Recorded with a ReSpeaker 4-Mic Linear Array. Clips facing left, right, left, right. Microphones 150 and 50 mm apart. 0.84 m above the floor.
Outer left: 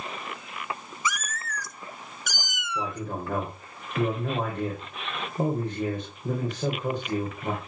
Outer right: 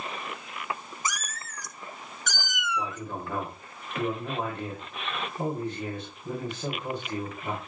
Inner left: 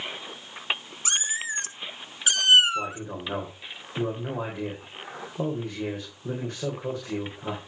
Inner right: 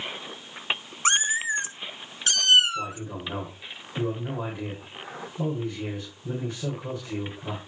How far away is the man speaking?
About 4 m.